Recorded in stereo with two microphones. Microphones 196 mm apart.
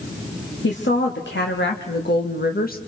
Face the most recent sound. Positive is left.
turn(degrees=50)  # may be behind; listen again after turning